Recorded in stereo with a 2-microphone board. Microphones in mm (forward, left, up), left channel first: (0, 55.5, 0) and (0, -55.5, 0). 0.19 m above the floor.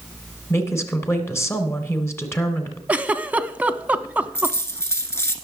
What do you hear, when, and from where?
0.5 s a woman speaking: 25° left (ahead or behind), 1.6 m
2.9 s a giggle: 15° right (ahead or behind), 0.5 m
4.3 s a dropped coin: 25° left (ahead or behind), 1.3 m